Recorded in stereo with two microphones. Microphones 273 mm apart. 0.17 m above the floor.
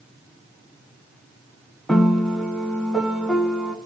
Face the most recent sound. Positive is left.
turn(degrees=0)  # may be behind; listen again after turning